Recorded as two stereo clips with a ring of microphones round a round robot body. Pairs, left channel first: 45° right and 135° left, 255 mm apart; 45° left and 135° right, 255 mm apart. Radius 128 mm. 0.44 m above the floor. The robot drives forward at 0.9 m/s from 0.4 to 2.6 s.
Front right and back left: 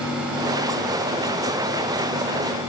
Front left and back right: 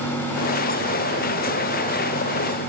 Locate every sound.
Only background noise.